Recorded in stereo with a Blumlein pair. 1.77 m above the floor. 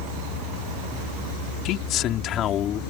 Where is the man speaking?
35° left; by 2.8 s 30° left.